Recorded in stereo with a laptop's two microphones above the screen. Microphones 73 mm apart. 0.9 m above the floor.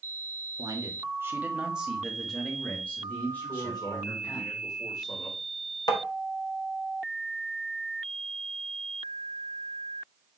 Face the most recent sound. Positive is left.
turn(degrees=70)  # may be behind; listen again after turning